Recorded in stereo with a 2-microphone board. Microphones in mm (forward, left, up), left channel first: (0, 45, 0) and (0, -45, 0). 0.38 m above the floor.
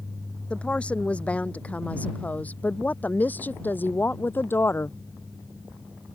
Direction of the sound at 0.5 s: 10° left (ahead or behind).